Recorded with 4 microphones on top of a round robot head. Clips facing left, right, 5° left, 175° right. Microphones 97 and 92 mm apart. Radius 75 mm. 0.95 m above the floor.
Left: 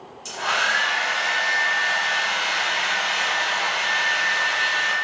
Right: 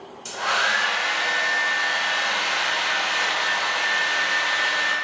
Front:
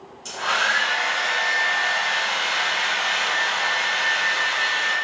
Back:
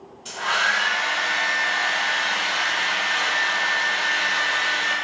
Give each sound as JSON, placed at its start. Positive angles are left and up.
{"t": 0.2, "sound": "a hair dryer", "azimuth_deg": -55, "distance_m": 2.5}